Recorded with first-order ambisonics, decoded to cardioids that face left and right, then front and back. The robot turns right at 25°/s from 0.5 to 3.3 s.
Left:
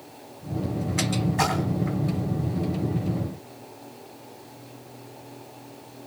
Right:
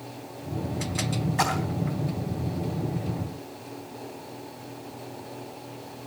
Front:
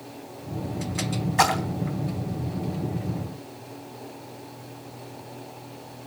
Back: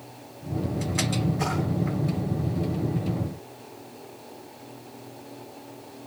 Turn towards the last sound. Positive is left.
turn(degrees=45)